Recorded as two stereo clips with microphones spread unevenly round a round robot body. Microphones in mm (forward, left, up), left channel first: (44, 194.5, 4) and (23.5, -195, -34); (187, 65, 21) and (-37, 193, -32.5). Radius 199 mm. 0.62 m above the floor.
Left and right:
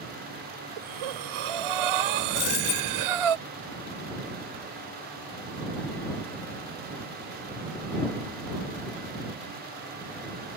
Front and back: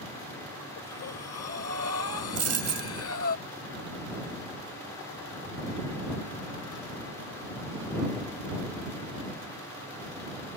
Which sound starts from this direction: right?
Breathing, at 0.8 s.